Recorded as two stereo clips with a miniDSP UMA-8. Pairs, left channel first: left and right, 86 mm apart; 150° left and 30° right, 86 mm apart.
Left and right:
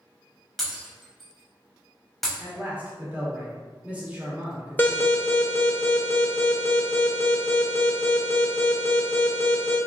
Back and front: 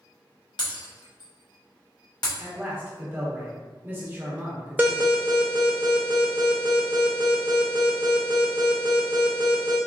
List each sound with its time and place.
0.6 s breaking glass: straight behind, 0.9 m
2.4 s a man speaking: 45° right, 0.9 m
4.8 s an alarm: 30° left, 0.7 m